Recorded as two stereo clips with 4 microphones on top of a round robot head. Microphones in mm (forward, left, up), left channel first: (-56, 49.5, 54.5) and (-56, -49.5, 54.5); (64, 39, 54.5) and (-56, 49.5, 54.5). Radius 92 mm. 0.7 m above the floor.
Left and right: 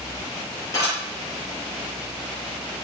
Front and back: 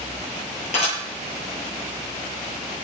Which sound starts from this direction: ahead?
Dishes clattering, at 0.7 s.